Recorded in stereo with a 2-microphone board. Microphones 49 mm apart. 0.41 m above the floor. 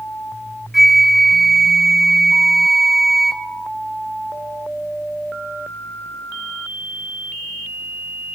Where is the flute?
5° right (ahead or behind), 0.6 m.